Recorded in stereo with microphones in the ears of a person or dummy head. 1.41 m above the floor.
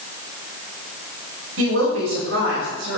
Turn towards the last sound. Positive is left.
turn(degrees=-75)  # may be behind; listen again after turning